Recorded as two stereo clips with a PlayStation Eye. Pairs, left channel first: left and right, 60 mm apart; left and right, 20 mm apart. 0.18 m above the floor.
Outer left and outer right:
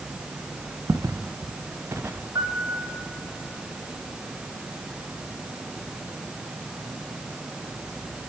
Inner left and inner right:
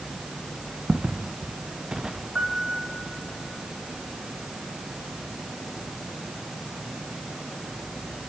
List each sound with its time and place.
0.9 s footsteps: 75° right (ahead or behind), 1.7 m; by 2.2 s 40° right (ahead or behind), 2 m
2.4 s a piano: 80° right, 3 m